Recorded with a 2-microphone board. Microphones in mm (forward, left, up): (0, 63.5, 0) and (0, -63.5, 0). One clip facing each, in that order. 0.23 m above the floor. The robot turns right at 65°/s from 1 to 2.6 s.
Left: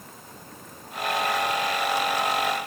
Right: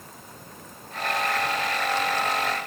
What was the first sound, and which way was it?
Only background noise.